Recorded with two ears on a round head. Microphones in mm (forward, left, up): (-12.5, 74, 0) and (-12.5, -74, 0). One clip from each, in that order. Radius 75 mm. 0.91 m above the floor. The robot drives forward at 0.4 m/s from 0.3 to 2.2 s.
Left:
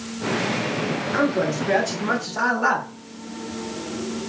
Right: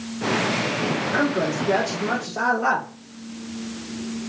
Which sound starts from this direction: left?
A man speaking, at 1.1 s.